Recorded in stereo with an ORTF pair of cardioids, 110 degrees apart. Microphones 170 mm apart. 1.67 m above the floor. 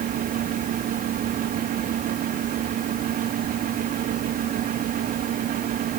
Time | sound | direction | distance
0.0 | a fan | 60° right | 2 m